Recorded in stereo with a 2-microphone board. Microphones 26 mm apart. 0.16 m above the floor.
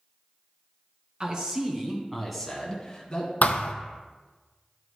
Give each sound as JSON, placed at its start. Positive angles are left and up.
{"t": 1.2, "sound": "a man speaking", "side_deg": -35, "distance_m": 1.6}
{"t": 3.4, "sound": "a thud", "side_deg": 80, "distance_m": 0.6}